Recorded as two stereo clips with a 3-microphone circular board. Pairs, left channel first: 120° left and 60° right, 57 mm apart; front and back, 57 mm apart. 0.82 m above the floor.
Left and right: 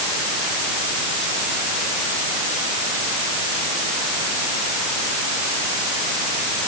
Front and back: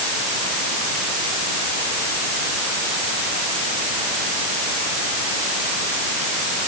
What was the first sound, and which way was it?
Only background noise.